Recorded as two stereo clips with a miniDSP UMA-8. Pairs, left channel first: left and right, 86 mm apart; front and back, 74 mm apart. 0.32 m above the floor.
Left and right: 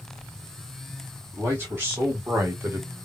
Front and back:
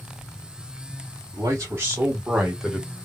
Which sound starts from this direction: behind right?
A man speaking, at 1.3 s.